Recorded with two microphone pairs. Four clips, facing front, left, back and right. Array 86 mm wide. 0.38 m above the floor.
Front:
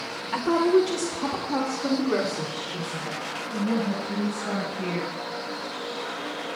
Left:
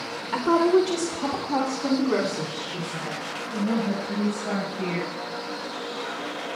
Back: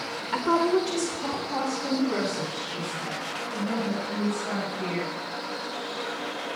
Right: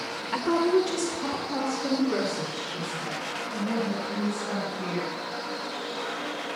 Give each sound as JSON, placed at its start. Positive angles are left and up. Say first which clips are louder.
{"t": 0.3, "sound": "a woman speaking", "louder": "left 4 dB, front 2 dB", "azimuth_deg": 135, "distance_m": 0.9}